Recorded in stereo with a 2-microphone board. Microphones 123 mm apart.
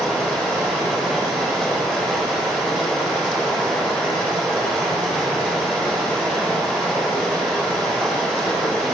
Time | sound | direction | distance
0.0 | running water | 5° left (ahead or behind) | 7 m